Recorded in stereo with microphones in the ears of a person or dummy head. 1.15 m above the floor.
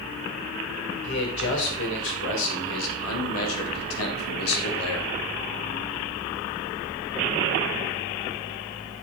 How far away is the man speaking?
About 3.5 m.